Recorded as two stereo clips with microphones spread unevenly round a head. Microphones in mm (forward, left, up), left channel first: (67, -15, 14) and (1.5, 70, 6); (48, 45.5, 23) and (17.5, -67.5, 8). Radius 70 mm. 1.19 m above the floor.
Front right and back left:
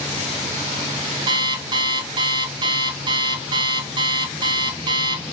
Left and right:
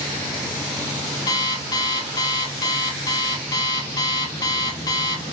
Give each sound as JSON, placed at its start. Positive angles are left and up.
{"t": 1.3, "sound": "an alarm clock", "azimuth_deg": 105, "distance_m": 0.6}